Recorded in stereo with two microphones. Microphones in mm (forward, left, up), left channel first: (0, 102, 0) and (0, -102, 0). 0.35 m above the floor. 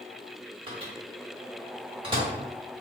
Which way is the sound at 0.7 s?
25° right (ahead or behind).